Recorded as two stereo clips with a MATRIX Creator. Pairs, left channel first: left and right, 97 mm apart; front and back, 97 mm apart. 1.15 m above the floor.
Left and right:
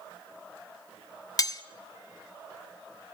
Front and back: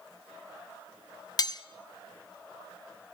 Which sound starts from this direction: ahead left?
Cutlery clinking, at 1.4 s.